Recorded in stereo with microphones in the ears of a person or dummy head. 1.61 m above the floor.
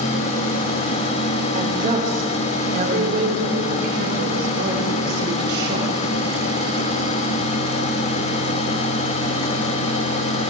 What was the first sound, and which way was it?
A woman speaking, 40° right (ahead or behind).